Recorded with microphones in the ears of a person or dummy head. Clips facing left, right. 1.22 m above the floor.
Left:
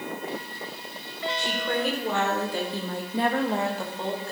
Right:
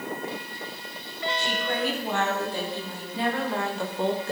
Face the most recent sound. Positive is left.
turn(degrees=-35)  # may be behind; listen again after turning